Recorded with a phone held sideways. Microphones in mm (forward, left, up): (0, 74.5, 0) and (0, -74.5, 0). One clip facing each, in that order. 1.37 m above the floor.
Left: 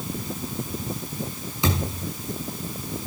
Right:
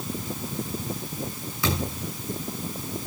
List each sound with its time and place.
1.6 s a thud: 20° left (ahead or behind), 7.5 m